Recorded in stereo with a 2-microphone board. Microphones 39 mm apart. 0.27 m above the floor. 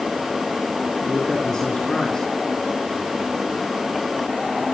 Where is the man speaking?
15° left (ahead or behind), 4.5 m.